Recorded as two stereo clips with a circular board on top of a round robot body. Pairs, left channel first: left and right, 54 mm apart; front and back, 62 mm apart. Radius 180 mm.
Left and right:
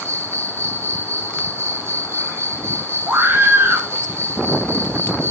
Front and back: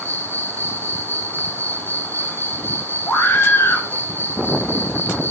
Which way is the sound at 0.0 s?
55° right.